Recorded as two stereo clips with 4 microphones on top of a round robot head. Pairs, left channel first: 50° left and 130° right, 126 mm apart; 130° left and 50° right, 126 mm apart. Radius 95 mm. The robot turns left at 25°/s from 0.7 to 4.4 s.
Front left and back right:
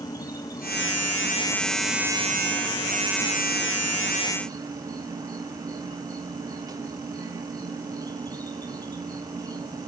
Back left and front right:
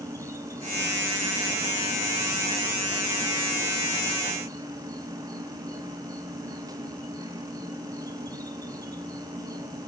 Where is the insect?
5° left, 0.9 m; by 9.9 s 90° right, 0.9 m.